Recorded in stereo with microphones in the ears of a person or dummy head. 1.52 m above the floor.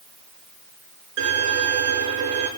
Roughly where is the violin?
Right.